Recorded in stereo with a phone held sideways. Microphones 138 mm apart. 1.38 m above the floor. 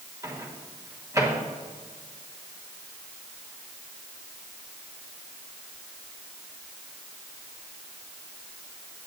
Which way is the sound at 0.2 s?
20° right (ahead or behind).